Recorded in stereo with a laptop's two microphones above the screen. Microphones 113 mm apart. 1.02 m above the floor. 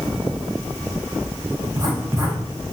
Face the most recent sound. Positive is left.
turn(degrees=-30)  # may be behind; listen again after turning